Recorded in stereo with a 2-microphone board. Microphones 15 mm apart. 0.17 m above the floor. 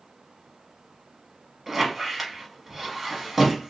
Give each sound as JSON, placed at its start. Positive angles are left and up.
{"t": 1.7, "sound": "a squeak", "side_deg": -15, "distance_m": 0.9}